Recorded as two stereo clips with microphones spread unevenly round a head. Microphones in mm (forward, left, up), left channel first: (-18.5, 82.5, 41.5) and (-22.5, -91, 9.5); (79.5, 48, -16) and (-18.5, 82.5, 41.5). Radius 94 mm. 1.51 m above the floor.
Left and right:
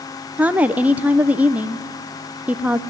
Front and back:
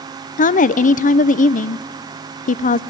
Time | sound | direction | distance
0.4 | a woman speaking | 5° right | 0.5 m